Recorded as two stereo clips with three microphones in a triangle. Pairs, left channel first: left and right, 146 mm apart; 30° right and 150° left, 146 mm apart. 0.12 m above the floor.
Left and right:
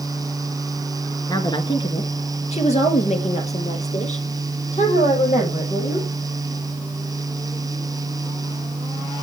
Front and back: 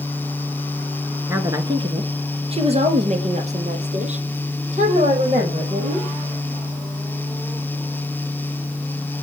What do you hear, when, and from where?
1.3 s a woman speaking: 100° left, 1.2 m; by 6.1 s 125° left, 4.5 m